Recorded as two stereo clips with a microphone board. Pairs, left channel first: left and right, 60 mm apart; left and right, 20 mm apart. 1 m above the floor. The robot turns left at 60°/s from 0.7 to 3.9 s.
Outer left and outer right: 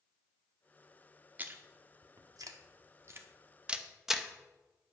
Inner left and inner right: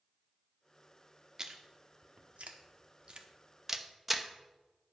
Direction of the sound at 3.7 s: 15° right (ahead or behind).